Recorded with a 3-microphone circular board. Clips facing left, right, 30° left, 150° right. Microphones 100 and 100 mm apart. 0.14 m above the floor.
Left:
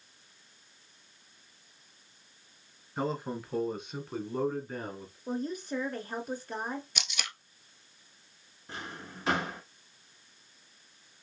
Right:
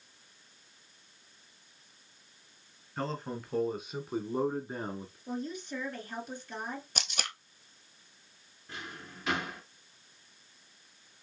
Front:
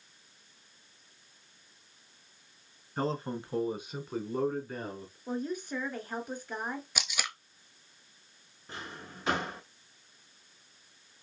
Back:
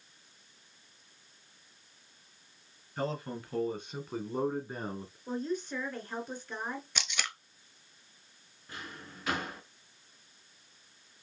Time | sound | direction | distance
3.0 | a man speaking | 20° left | 1.2 m
5.3 | a woman speaking | 105° left | 1.7 m
7.0 | tape being pulled | 50° right | 0.7 m
8.7 | a drawer | 65° left | 1.1 m